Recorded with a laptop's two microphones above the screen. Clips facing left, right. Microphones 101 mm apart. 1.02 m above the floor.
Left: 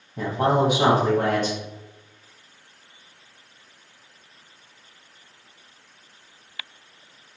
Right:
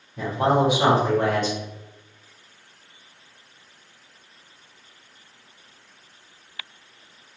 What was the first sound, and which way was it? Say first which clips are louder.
A man speaking: even; 45° left (ahead or behind).